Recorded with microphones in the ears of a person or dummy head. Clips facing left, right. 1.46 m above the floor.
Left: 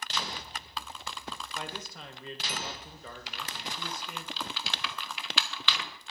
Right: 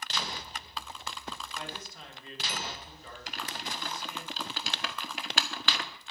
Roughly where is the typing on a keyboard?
Right.